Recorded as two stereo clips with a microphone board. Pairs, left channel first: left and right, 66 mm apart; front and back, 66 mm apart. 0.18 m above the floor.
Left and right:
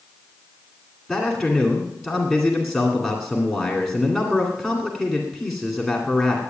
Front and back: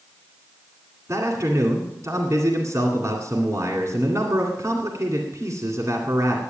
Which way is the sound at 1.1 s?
175° right.